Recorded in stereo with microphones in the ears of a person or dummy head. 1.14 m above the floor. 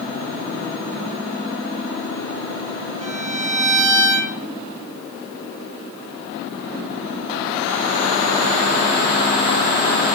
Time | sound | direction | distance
3.0 | a violin | 35° right (ahead or behind) | 0.5 m